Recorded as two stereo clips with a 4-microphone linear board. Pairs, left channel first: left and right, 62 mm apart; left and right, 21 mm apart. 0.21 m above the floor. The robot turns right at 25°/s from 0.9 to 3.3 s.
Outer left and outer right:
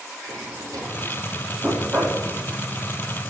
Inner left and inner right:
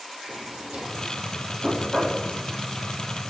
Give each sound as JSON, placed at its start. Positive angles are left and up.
{"t": 0.2, "sound": "a drawer", "side_deg": -75, "distance_m": 4.0}
{"t": 1.6, "sound": "knocking", "side_deg": -35, "distance_m": 6.5}